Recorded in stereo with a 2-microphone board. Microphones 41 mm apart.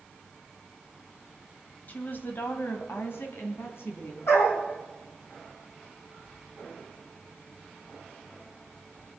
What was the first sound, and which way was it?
A woman speaking, 45° left (ahead or behind).